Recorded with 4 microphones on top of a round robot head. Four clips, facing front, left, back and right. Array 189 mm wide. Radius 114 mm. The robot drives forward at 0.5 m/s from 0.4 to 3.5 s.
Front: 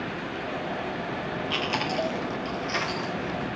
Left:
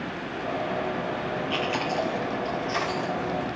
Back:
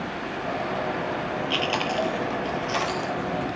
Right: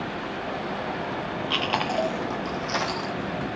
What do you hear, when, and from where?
1.5 s chewing: 95° right, 1.7 m; by 3.5 s 125° right, 2 m